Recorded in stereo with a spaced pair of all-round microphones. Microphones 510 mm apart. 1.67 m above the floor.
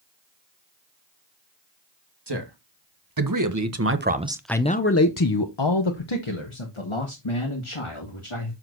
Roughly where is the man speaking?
Right.